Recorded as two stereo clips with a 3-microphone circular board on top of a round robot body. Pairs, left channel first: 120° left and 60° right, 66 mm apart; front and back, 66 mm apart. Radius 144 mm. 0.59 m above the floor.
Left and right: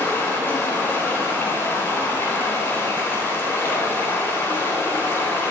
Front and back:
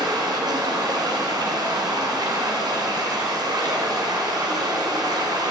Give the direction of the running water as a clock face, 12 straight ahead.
6 o'clock.